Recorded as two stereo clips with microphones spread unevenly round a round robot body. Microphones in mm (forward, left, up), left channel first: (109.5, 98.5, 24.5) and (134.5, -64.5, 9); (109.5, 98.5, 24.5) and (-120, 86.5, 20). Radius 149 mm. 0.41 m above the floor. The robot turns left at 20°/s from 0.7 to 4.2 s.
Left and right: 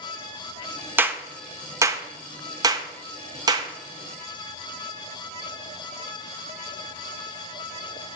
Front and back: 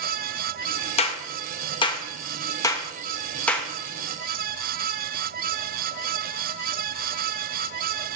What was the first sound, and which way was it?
A clap, 25° right.